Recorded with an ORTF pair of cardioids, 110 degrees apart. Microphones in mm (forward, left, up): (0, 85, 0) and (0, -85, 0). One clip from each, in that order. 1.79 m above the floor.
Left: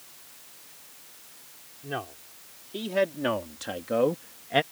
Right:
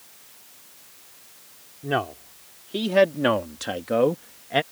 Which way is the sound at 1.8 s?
55° right.